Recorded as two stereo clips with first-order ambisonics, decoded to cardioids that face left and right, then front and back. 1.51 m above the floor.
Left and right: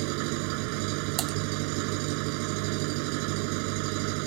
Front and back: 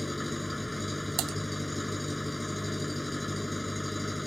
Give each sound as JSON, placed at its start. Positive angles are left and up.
{"t": 0.0, "sound": "an engine running", "azimuth_deg": -85}
{"t": 1.2, "sound": "typing on a keyboard", "azimuth_deg": -145}